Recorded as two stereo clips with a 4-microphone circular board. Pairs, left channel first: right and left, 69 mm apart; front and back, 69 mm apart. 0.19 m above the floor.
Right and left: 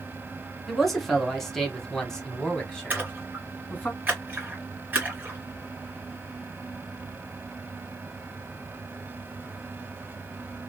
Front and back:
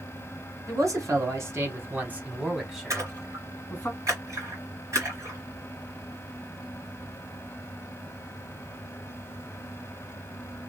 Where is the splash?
150° left, 2.5 m.